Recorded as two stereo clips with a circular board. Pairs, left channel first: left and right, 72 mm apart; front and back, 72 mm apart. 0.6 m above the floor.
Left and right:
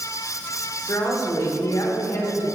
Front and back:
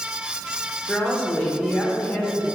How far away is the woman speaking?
About 1.9 m.